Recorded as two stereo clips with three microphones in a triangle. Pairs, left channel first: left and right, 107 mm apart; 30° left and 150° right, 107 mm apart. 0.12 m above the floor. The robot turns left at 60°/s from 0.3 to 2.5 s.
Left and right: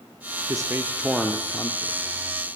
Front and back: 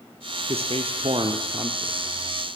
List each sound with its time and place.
0.5 s a man speaking: 140° right, 3.5 m; by 2.0 s 130° left, 3.5 m